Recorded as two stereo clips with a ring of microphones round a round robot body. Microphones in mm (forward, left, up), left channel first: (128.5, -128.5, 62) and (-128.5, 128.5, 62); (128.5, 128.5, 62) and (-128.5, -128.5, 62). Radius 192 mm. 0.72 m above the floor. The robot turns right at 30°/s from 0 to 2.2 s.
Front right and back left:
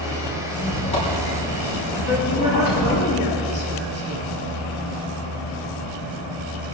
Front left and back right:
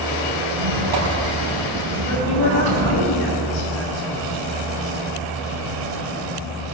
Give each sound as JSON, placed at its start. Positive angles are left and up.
{"t": 0.5, "sound": "a squeak", "azimuth_deg": -130, "distance_m": 5.0}
{"t": 2.0, "sound": "a woman speaking", "azimuth_deg": 15, "distance_m": 6.5}